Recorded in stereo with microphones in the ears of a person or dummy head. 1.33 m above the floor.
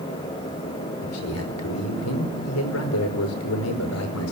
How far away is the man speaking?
About 4.5 m.